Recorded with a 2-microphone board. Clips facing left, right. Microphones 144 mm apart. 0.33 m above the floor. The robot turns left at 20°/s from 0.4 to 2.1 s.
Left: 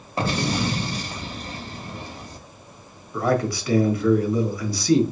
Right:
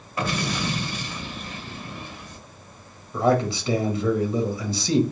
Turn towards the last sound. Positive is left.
turn(degrees=-25)  # may be behind; listen again after turning